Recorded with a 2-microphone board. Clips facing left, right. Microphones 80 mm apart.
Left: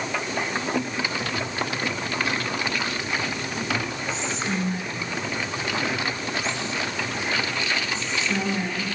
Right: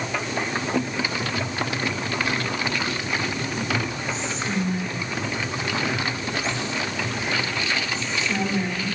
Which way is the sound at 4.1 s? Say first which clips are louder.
Even; 30° left (ahead or behind).